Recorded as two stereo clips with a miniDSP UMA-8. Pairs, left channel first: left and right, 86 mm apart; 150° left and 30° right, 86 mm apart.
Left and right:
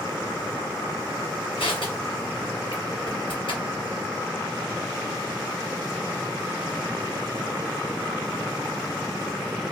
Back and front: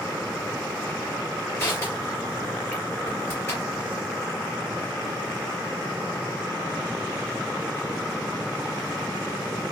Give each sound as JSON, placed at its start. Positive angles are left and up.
{"t": 1.6, "sound": "crushing", "azimuth_deg": 95, "distance_m": 2.5}